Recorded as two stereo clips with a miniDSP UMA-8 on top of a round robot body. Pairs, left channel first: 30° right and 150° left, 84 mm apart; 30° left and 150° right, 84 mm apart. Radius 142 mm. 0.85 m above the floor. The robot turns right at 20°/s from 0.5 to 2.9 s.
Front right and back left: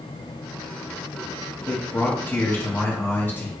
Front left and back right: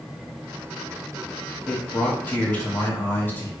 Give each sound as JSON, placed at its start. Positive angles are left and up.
{"t": 1.7, "sound": "a man speaking", "azimuth_deg": -25, "distance_m": 1.0}